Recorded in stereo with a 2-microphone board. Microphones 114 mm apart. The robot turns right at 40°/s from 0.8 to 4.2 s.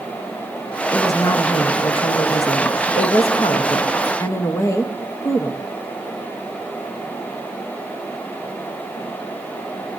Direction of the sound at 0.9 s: 20° left.